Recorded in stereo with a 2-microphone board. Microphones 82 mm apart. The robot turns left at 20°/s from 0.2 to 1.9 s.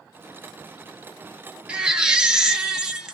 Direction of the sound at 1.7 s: 15° right (ahead or behind).